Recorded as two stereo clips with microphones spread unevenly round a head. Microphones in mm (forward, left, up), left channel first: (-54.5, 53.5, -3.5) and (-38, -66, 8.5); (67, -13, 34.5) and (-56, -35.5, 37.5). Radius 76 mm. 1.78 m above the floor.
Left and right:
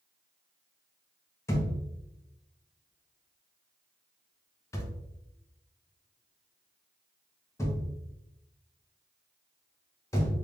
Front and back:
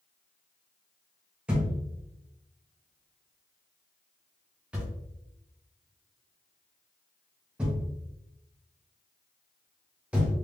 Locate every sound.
1.5 s a thud: 125° left, 1.1 m